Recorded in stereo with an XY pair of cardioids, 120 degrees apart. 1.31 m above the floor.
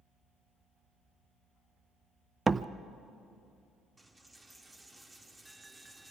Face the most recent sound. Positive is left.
turn(degrees=-20)